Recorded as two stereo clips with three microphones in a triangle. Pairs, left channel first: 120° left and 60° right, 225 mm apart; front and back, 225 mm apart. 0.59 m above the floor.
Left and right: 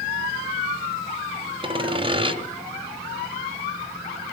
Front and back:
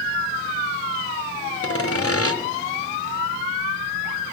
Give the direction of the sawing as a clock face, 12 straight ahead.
12 o'clock.